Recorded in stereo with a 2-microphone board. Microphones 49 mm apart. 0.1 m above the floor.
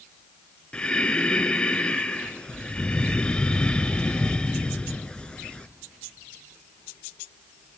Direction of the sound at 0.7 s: 20° left (ahead or behind).